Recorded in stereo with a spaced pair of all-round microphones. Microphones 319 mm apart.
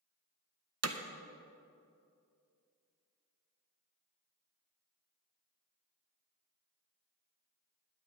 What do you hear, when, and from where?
0.8 s hammering: 50° right (ahead or behind), 0.7 m